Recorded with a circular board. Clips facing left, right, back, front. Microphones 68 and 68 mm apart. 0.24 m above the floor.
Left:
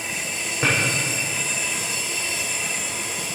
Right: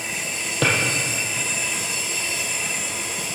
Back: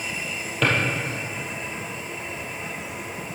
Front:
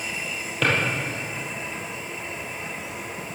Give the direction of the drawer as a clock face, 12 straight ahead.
3 o'clock.